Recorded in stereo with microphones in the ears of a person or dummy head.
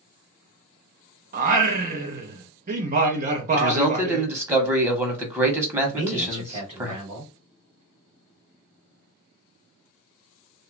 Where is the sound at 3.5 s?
10° right (ahead or behind), 1.2 m.